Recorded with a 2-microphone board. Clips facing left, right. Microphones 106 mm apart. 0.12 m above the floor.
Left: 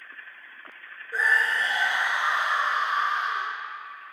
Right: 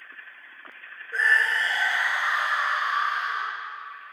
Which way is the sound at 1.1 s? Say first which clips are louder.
Right 1 dB; 10° left (ahead or behind).